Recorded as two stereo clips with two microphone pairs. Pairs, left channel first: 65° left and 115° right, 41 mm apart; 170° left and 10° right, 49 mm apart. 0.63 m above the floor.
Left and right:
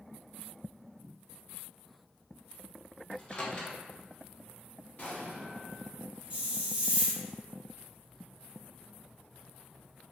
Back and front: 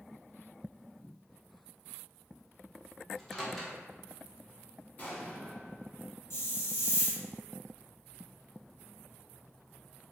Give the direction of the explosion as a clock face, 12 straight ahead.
8 o'clock.